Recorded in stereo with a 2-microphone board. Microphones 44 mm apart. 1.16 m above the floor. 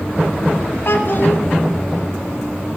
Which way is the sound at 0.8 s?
50° left (ahead or behind).